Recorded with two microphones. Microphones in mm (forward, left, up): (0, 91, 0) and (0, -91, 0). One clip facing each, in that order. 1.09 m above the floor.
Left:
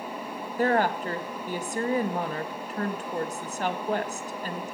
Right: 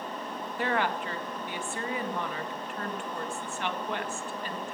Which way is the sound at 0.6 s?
40° left (ahead or behind).